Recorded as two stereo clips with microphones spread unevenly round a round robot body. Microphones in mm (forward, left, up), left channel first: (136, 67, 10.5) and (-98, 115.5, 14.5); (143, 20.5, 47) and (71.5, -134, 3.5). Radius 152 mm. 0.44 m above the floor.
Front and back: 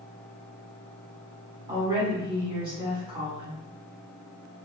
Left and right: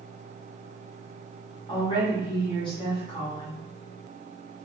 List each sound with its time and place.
1.7 s a woman speaking: 130° left, 1.1 m